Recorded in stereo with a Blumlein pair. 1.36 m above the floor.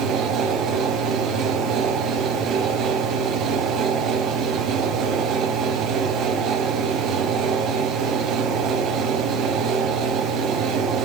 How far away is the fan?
About 0.8 m.